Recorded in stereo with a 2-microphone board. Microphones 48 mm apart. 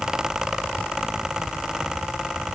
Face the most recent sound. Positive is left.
No sound to turn to.